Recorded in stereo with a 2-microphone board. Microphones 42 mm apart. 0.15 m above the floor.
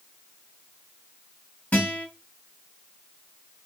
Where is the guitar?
30° left (ahead or behind), 1.9 m.